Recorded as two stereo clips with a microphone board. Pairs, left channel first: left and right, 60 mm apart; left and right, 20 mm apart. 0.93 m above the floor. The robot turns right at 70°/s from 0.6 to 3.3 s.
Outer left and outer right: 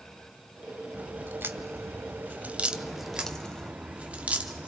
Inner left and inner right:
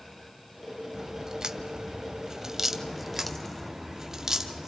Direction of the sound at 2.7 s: 20° left (ahead or behind).